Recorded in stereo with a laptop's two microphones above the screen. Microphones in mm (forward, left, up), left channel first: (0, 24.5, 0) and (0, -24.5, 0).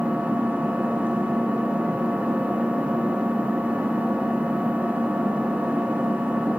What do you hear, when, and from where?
0.0 s an engine running: 30° right (ahead or behind), 1.0 m